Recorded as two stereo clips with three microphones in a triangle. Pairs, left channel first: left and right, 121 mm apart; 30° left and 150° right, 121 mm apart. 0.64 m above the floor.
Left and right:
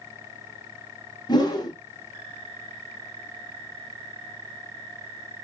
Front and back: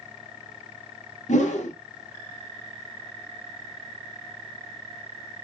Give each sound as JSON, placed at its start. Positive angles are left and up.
{"t": 1.3, "sound": "a whoosh", "azimuth_deg": 35, "distance_m": 0.7}